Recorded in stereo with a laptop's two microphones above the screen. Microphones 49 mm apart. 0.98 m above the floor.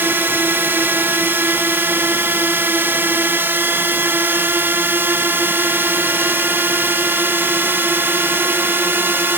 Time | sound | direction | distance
0.0 | a drone | 45° right (ahead or behind) | ?